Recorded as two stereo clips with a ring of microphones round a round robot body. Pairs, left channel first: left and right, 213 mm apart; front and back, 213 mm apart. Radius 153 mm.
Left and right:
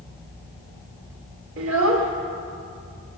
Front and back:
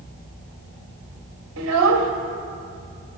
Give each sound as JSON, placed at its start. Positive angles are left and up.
{"t": 1.6, "sound": "a child speaking", "azimuth_deg": -135, "distance_m": 1.5}